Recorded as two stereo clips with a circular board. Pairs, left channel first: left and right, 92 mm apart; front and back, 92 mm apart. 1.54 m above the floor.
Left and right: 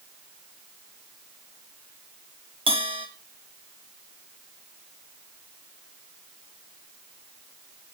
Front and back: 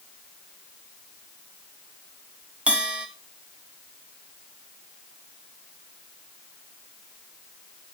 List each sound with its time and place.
2.7 s a bell: 100° right, 1.6 m